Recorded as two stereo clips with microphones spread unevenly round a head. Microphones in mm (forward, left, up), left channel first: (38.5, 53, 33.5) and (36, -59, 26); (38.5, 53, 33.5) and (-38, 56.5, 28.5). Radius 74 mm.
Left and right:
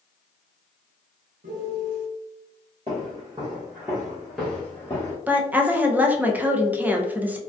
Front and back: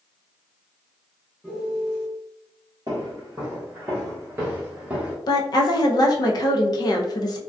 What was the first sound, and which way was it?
A piano, 95° right.